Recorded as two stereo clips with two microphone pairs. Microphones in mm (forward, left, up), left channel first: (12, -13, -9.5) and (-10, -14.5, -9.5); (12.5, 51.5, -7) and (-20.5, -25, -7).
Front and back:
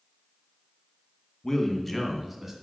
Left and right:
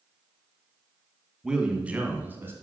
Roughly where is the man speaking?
Ahead right.